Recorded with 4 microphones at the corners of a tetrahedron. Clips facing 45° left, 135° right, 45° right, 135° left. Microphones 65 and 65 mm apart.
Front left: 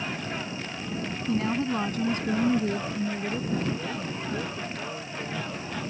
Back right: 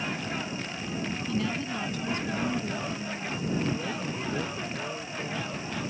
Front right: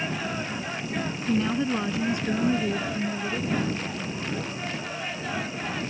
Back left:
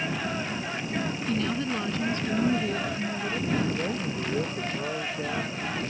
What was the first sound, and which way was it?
A woman speaking, 10° left.